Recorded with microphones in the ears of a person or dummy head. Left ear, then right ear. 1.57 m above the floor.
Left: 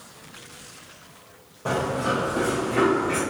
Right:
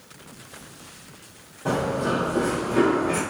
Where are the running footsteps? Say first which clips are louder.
Even; 15° left (ahead or behind), 1.9 m; by 3.2 s 15° right (ahead or behind), 1.6 m.